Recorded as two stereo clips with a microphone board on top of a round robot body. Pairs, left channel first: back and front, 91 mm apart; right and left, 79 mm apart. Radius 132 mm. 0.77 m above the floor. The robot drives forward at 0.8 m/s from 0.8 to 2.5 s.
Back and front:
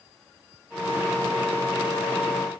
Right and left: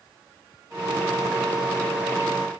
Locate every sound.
Only background noise.